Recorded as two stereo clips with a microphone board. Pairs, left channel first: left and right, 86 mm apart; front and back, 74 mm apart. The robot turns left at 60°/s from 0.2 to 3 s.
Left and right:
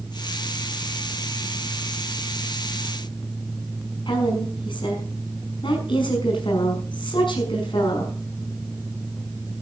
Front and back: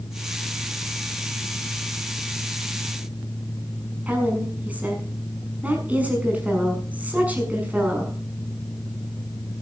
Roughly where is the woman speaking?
Left.